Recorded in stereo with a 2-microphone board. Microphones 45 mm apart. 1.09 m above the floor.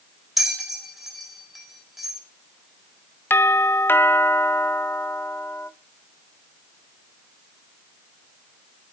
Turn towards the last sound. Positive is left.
turn(degrees=55)  # may be behind; listen again after turning